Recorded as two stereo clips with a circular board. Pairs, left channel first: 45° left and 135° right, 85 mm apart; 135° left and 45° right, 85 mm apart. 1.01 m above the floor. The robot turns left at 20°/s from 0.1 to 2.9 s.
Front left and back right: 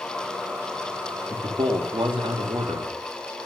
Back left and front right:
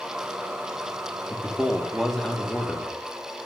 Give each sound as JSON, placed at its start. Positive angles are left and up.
{"t": 1.3, "sound": "a man speaking", "azimuth_deg": -120, "distance_m": 1.9}